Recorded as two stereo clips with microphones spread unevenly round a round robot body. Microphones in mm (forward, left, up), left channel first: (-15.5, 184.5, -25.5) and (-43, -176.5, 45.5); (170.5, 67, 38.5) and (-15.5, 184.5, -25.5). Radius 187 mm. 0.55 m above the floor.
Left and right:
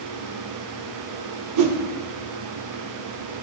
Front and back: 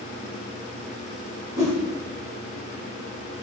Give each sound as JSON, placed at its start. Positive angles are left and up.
{"t": 1.6, "sound": "a whoosh", "azimuth_deg": -140, "distance_m": 1.4}